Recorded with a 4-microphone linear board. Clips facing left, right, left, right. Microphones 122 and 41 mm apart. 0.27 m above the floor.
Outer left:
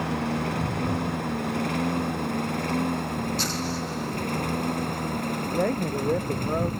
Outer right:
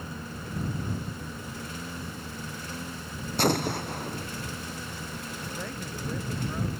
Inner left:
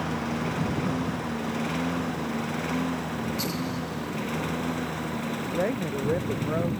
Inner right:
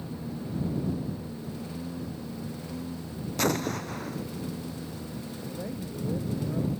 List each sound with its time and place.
0.0 s a lawn mower: 70° left (ahead or behind); by 6.8 s 55° left (ahead or behind)
3.4 s an explosion: 55° right (ahead or behind)
5.5 s a man speaking: 55° left (ahead or behind)